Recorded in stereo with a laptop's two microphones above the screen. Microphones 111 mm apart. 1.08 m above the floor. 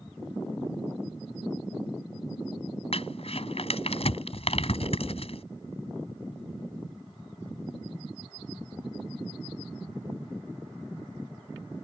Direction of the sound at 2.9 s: 60° left (ahead or behind).